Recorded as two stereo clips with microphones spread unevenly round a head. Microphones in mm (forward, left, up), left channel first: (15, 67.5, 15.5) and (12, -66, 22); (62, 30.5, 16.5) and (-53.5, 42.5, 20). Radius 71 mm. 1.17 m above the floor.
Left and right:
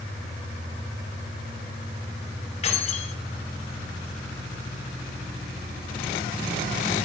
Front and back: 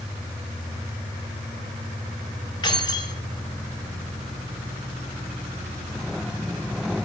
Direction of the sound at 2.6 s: 45° left.